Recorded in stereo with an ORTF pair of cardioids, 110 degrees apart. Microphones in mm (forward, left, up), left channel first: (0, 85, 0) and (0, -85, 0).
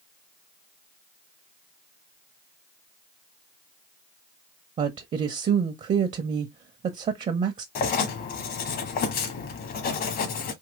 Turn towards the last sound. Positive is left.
turn(degrees=60)